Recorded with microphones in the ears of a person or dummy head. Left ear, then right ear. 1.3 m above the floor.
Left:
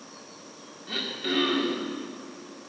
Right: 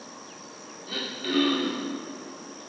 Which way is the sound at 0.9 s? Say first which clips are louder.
Left 1 dB; 5° left (ahead or behind).